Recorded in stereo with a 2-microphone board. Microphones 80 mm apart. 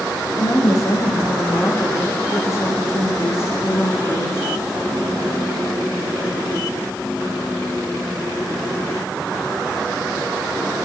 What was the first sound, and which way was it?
A woman speaking, 45° left (ahead or behind).